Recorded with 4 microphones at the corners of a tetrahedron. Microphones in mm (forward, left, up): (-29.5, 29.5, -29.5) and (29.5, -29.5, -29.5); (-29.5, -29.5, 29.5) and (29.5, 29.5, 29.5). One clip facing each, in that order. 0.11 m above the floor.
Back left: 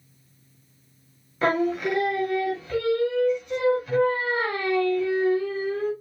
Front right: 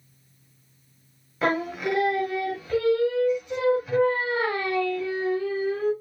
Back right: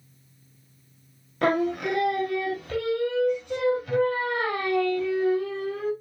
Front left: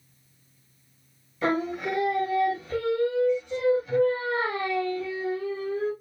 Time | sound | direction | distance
1.4 | singing | 135° right | 0.9 m